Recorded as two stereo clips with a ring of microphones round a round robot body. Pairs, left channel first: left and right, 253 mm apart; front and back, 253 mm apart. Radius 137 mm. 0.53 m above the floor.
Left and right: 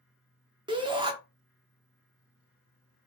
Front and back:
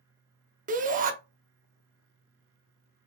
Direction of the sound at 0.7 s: 150° right.